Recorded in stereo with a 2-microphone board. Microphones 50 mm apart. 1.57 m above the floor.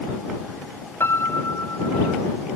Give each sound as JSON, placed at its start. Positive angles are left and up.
{"t": 1.0, "sound": "a piano", "side_deg": 60}